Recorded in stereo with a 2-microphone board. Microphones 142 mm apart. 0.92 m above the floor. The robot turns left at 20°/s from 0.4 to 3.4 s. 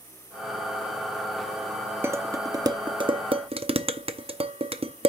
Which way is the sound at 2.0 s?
15° right (ahead or behind).